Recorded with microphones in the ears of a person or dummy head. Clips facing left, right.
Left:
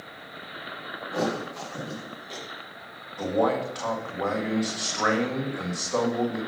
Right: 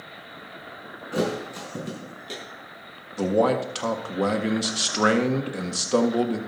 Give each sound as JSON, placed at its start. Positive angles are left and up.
{"t": 1.1, "sound": "a thud", "side_deg": -40, "distance_m": 4.0}
{"t": 3.2, "sound": "a man speaking", "side_deg": -45, "distance_m": 1.7}